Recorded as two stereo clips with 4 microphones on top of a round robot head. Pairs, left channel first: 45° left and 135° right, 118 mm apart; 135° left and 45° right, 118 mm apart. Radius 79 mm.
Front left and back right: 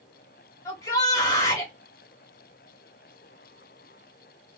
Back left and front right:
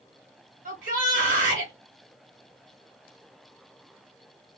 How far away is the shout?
About 1.3 m.